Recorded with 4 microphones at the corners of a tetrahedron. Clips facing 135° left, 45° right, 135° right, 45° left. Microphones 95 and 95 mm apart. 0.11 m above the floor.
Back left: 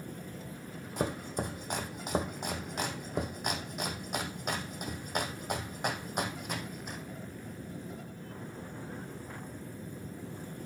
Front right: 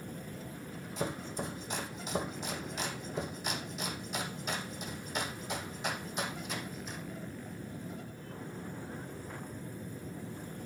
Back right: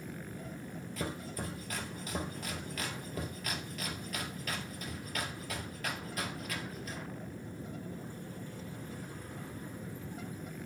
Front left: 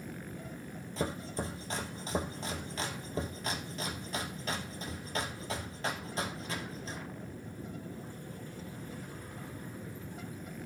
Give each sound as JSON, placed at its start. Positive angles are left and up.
{"t": 1.0, "sound": "chopping", "azimuth_deg": 105, "distance_m": 2.0}